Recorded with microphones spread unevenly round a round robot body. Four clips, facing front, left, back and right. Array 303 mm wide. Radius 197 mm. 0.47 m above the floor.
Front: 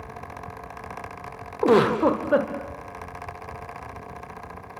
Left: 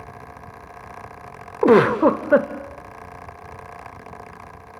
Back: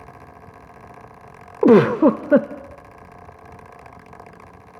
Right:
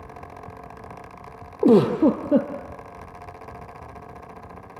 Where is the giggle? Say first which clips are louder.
Left 2 dB, back 6 dB; 165° right, 0.8 m.